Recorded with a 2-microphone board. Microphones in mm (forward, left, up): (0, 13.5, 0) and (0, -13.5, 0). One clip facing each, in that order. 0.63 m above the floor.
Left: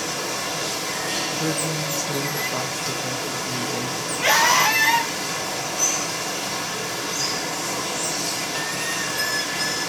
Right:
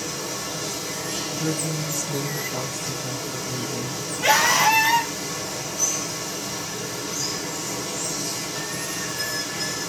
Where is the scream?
10° left (ahead or behind), 2.5 m.